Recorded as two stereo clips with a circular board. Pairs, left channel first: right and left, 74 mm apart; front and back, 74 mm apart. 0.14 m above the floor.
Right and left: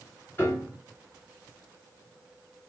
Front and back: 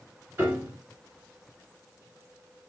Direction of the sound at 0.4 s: 130° right.